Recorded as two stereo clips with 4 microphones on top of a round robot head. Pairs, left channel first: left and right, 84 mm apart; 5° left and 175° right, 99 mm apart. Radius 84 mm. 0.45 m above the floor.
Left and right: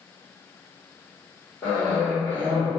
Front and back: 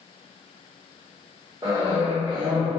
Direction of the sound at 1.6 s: 145° left.